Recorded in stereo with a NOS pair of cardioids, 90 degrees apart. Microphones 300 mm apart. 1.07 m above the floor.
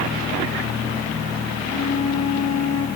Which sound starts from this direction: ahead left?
A flute, at 1.6 s.